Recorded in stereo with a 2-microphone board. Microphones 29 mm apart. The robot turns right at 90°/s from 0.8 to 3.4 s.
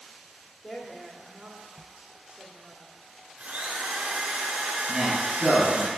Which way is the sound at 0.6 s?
165° left.